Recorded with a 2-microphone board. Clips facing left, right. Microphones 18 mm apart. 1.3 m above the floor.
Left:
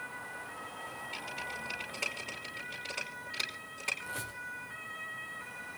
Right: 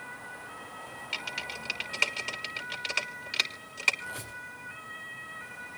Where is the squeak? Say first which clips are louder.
Right 1 dB; 10° right (ahead or behind), 7 m.